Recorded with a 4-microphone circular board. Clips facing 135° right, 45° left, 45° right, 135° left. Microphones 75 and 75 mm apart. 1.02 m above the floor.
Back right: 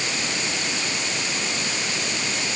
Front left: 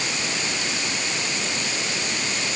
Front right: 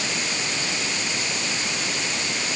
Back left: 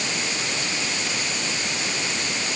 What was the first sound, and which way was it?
Only background noise.